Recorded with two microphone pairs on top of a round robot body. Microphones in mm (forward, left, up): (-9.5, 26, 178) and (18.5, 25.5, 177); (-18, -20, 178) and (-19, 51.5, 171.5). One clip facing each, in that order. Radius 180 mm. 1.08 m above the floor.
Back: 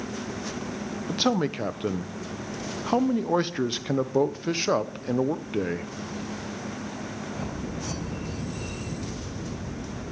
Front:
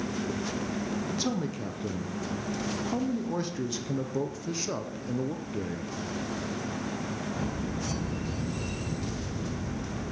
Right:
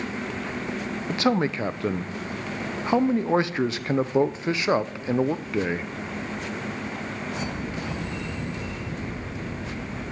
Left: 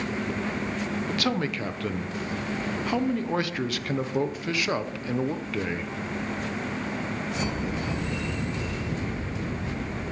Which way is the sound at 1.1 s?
150° right.